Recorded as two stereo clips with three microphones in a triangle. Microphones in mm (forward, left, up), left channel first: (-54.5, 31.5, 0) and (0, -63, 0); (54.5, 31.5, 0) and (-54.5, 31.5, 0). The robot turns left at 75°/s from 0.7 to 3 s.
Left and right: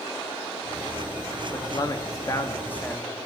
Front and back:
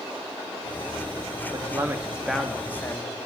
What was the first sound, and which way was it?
A man speaking, 150° left.